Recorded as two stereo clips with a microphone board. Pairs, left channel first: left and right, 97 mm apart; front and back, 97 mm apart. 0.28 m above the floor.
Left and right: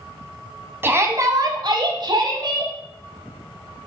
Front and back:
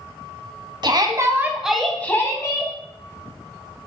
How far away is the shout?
About 1.7 m.